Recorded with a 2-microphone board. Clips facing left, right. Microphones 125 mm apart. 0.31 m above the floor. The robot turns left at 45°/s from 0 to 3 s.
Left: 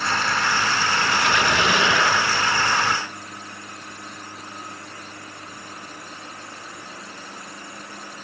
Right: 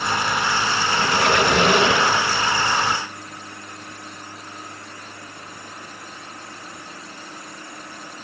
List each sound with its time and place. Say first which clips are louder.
0.9 s a squeak: right 5 dB; 100° right, 3 m; by 2.3 s 165° right, 3 m